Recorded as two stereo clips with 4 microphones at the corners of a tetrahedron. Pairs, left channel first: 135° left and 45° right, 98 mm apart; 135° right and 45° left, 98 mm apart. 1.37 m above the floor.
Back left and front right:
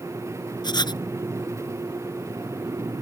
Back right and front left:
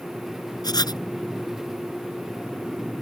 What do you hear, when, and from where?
0.6 s writing: straight behind